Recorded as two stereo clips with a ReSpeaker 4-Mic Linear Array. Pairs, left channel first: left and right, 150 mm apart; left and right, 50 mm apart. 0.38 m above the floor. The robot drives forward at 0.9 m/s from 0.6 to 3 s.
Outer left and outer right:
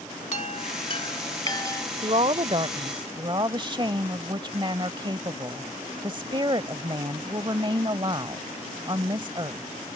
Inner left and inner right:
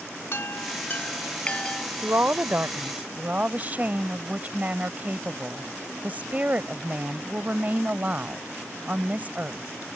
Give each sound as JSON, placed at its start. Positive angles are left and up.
{"t": 0.3, "sound": "a chime", "side_deg": 55}
{"t": 2.0, "sound": "a woman speaking", "side_deg": -45}